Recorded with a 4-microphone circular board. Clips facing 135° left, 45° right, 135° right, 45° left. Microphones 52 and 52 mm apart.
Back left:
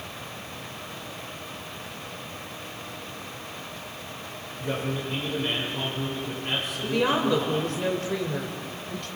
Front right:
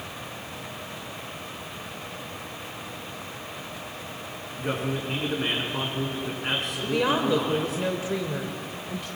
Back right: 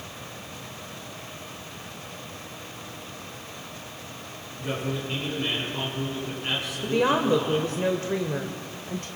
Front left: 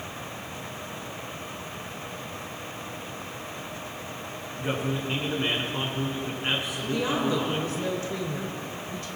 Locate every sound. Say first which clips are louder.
4.6 s a man speaking: front right 1 dB, front left 1 dB; 20° right, 5.5 m
6.8 s a woman speaking: even, back right 6 dB; 125° right, 1.5 m